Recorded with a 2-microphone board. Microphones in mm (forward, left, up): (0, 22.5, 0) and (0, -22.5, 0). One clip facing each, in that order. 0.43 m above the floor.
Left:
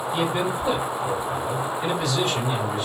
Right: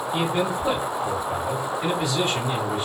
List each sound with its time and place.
0.1 s a man speaking: 15° right (ahead or behind), 1.3 m